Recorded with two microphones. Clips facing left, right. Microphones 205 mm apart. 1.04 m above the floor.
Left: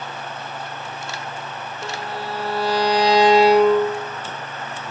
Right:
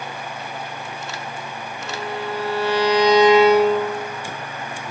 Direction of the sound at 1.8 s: 35° left (ahead or behind).